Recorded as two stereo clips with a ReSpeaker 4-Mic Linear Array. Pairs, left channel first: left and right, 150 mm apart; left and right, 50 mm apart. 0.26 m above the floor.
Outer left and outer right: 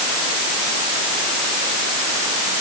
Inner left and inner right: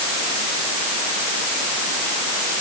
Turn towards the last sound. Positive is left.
No sound to turn to.